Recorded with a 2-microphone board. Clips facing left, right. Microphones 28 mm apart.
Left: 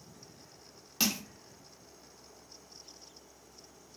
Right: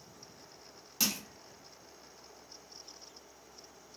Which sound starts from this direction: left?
Crushing, at 1.0 s.